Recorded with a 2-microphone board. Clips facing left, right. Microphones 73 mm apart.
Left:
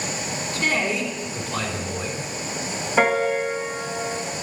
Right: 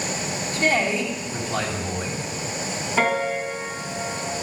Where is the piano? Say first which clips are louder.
Left 3 dB; 10° left (ahead or behind), 1.4 m.